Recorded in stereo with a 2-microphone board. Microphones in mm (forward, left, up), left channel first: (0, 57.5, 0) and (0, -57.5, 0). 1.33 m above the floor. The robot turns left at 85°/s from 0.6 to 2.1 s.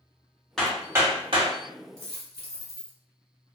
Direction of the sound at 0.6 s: 5° left (ahead or behind).